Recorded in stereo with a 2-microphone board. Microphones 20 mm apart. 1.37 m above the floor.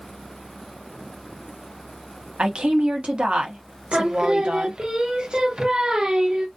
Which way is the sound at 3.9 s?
50° right (ahead or behind).